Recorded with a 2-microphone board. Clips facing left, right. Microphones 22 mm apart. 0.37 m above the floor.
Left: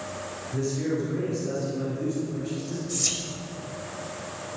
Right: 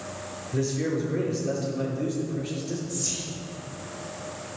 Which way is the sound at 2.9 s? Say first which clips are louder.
Left 3 dB; 40° left (ahead or behind).